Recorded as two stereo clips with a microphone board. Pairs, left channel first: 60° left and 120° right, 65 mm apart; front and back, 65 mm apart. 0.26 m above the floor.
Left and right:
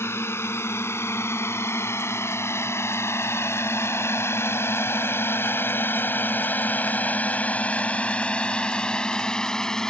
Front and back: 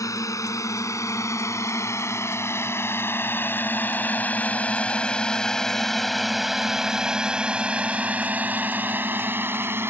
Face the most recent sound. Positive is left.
turn(degrees=140)